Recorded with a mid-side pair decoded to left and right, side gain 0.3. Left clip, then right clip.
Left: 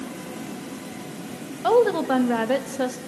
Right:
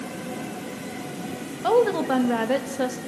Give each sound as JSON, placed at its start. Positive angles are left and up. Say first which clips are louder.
{"t": 1.6, "sound": "a woman speaking", "louder": "left 1 dB", "azimuth_deg": 20, "distance_m": 1.8}